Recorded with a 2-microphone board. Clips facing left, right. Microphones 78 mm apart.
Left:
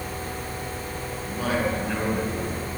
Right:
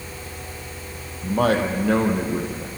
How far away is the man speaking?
About 4 m.